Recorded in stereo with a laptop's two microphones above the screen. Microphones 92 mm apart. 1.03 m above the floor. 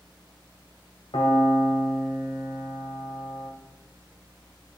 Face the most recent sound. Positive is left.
turn(degrees=75)  # may be behind; listen again after turning